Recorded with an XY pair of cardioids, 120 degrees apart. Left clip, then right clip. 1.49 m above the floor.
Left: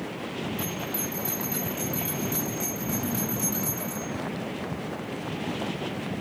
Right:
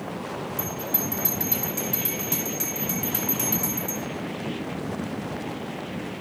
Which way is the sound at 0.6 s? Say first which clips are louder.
Right 1 dB; 50° right.